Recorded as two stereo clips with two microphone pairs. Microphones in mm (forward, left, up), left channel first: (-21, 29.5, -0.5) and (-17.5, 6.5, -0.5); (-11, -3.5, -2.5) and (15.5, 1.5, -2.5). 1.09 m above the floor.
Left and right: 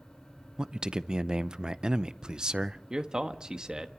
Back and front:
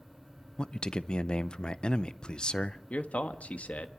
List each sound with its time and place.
0.6 s a man speaking: 130° right, 0.5 m
2.9 s a man speaking: 145° right, 1.2 m